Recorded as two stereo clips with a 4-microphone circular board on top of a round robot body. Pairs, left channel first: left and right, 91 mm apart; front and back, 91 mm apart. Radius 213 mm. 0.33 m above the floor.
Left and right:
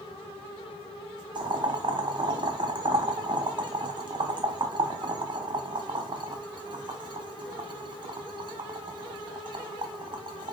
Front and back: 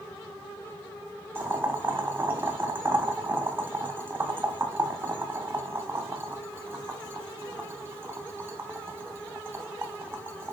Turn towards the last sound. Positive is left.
turn(degrees=-115)